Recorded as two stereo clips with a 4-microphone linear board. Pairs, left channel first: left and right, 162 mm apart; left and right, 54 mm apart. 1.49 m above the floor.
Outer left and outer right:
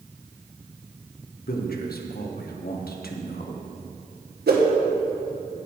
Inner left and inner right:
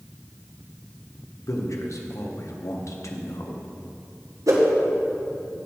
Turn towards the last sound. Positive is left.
turn(degrees=-75)  # may be behind; listen again after turning